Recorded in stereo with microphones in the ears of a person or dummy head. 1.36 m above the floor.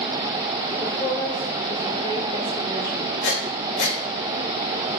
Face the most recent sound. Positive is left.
turn(degrees=60)  # may be behind; listen again after turning